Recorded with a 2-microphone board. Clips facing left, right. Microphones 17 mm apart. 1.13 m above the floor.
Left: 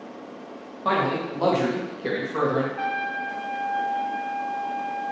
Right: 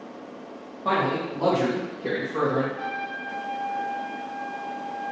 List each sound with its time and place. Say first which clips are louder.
0.8 s a man speaking: left 1 dB; 70° left (ahead or behind), 1.5 m; by 2.7 s 40° left (ahead or behind), 0.9 m
2.8 s a trumpet: left 4 dB; 60° left (ahead or behind), 0.5 m